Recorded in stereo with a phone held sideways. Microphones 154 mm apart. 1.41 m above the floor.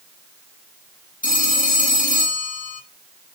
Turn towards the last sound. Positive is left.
turn(degrees=60)  # may be behind; listen again after turning